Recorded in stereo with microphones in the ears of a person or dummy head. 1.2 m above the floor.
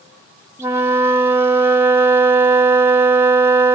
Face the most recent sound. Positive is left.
turn(degrees=-10)  # may be behind; listen again after turning